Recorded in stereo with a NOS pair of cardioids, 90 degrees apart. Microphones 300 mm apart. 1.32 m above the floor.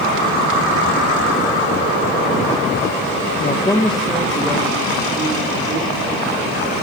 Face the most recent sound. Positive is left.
turn(degrees=-30)